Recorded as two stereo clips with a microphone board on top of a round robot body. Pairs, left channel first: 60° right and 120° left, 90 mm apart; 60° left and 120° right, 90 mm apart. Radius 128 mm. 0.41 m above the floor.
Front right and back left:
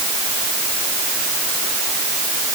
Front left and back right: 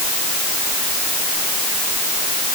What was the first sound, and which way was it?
Only background noise.